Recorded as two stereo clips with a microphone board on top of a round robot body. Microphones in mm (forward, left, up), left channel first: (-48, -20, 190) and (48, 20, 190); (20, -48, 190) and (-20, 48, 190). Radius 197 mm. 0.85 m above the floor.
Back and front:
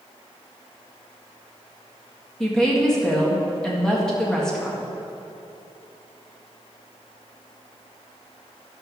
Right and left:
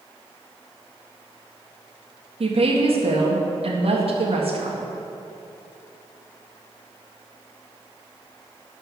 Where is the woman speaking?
120° left, 1.9 m.